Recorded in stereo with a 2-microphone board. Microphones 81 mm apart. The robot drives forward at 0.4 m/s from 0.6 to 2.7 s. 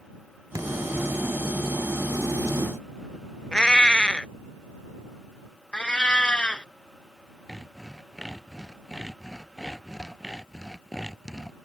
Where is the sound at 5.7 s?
15° left (ahead or behind).